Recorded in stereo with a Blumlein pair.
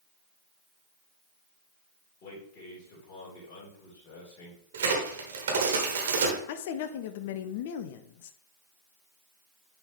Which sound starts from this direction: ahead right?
A crack, at 4.7 s.